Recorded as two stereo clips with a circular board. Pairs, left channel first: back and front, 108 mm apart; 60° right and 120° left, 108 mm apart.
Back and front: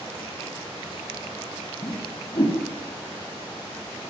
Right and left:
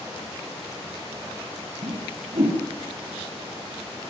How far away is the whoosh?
About 8.5 m.